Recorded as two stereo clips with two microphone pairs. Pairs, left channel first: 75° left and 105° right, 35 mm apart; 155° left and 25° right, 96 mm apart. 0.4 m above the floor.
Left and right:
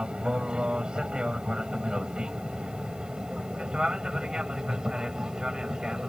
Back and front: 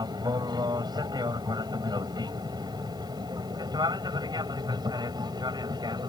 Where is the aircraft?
50° right; by 6.1 s 40° right.